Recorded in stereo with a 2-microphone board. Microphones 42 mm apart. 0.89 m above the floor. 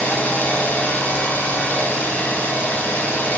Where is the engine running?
50° left (ahead or behind), 6 m.